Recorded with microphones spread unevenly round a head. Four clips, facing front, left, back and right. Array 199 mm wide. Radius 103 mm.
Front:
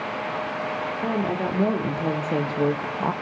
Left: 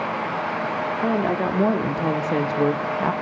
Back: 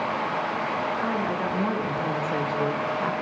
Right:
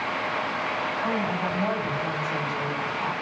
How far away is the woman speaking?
About 3.5 m.